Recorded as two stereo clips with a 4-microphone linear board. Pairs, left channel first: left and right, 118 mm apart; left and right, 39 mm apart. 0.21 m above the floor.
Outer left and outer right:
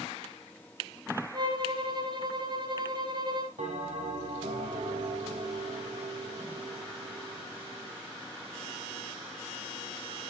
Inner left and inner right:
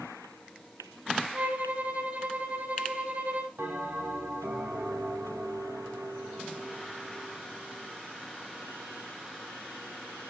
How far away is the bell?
About 3 m.